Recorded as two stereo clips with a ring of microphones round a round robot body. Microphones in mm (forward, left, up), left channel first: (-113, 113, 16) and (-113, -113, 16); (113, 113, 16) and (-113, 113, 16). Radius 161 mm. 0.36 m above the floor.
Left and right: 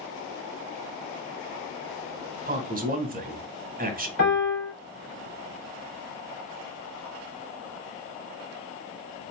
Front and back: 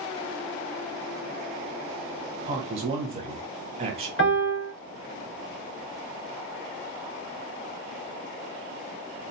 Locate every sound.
2.5 s a man speaking: 125° right, 1.0 m
4.2 s a piano: 35° left, 2 m